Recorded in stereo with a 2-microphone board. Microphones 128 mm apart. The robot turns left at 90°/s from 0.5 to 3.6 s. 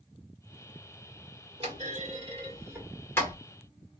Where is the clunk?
50° right (ahead or behind), 2.5 m; by 3.4 s 30° left (ahead or behind), 2.5 m.